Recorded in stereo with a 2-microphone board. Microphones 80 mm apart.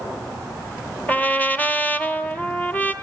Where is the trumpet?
20° left (ahead or behind), 0.8 m.